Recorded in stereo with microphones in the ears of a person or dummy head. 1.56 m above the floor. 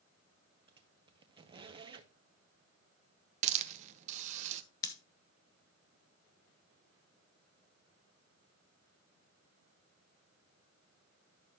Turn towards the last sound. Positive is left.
turn(degrees=20)  # may be behind; listen again after turning